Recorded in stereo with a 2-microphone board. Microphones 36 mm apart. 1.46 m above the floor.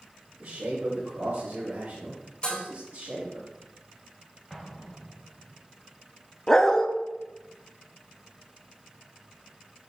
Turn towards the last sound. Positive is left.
turn(degrees=15)  # may be behind; listen again after turning